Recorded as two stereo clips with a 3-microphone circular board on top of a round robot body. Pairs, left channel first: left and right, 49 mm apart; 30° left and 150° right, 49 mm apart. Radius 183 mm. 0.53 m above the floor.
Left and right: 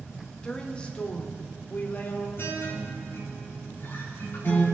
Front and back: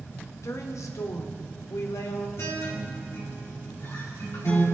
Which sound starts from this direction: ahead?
A woman speaking, at 0.4 s.